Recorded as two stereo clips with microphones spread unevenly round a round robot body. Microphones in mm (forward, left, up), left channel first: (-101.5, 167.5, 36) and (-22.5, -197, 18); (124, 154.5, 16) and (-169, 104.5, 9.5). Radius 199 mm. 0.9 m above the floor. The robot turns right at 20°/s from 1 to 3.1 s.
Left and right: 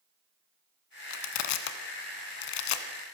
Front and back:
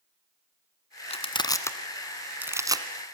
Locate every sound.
1.1 s crushing: 80° left, 1.7 m; by 2.9 s 115° left, 1.7 m